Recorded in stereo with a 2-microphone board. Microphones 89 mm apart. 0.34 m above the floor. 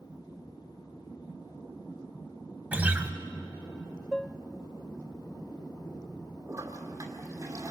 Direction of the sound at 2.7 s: 15° right (ahead or behind).